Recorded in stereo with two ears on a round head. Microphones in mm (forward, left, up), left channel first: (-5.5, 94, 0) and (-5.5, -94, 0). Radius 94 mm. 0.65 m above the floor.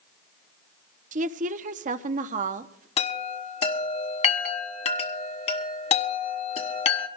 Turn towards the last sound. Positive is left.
turn(degrees=30)  # may be behind; listen again after turning